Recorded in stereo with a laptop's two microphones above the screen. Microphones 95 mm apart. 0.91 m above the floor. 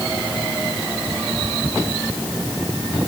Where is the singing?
No singing in this recording.